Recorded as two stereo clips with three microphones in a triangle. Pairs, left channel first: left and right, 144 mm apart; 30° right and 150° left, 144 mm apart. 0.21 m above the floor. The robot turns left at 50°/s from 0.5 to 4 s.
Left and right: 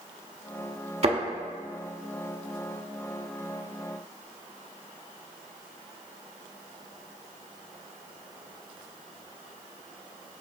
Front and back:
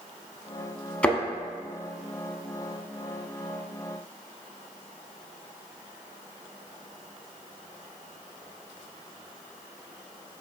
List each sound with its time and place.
1.0 s a thud: 110° right, 0.7 m; by 1.2 s 115° right, 0.7 m